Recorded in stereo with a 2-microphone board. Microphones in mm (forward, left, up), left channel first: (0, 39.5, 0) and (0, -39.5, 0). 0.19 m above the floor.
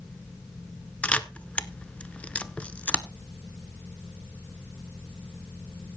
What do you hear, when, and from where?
1.0 s a camera shutter: 15° left (ahead or behind), 0.9 m